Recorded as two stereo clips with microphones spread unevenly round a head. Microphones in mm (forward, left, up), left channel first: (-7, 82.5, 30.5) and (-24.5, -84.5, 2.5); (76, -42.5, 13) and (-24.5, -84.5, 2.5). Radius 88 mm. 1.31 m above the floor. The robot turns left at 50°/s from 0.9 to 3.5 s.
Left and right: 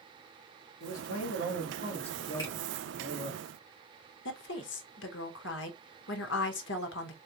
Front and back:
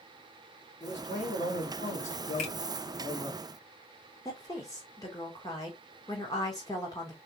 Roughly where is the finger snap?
Ahead.